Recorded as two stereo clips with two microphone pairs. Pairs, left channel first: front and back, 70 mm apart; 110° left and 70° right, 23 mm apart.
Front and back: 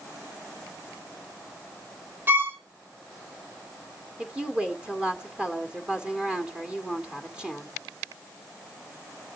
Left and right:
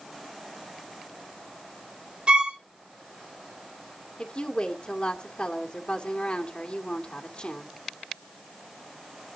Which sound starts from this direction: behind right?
A violin, at 2.3 s.